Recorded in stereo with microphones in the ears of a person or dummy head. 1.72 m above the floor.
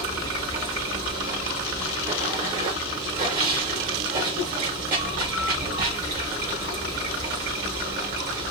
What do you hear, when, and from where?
0.0 s running water: 45° right (ahead or behind), 1.0 m